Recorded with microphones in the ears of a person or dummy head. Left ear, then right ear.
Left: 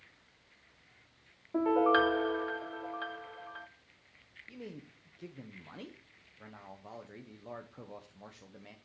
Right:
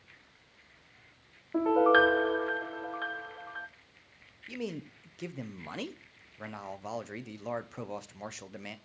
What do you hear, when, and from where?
1.5 s a piano: 10° left (ahead or behind), 0.7 m
4.5 s a man speaking: 65° right (ahead or behind), 0.7 m